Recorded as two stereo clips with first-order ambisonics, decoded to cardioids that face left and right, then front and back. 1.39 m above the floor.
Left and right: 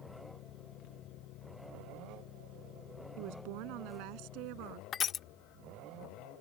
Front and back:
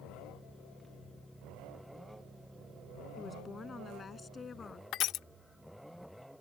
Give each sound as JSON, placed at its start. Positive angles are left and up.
{"t": 3.2, "sound": "a woman speaking", "azimuth_deg": -75}
{"t": 4.9, "sound": "crushing", "azimuth_deg": 35}